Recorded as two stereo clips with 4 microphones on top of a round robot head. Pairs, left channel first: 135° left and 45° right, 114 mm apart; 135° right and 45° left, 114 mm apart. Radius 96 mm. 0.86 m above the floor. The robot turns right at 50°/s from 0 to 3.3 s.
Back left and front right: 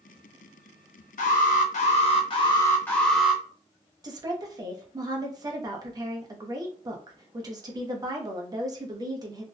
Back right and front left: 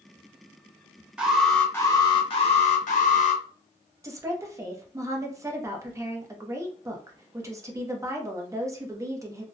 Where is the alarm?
125° left, 0.6 m; by 3.4 s 130° right, 0.6 m.